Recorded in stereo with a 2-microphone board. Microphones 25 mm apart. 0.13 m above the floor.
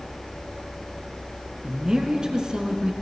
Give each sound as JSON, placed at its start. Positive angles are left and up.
{"t": 1.6, "sound": "a woman speaking", "side_deg": -30, "distance_m": 1.5}